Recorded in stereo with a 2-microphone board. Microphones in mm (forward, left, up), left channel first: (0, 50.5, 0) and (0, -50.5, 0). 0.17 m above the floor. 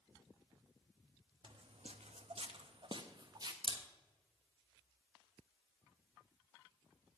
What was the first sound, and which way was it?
Footsteps, 60° right (ahead or behind).